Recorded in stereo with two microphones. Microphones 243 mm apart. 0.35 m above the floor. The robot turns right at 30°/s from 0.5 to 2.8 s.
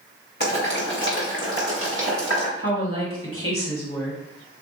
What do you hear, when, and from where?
0.4 s boiling: 45° left (ahead or behind), 1.9 m; by 2.5 s 70° left (ahead or behind), 1.9 m
2.6 s a woman speaking: 60° left (ahead or behind), 1.9 m